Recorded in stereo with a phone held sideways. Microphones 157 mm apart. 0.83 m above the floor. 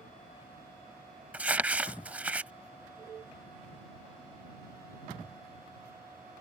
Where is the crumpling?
10° right (ahead or behind).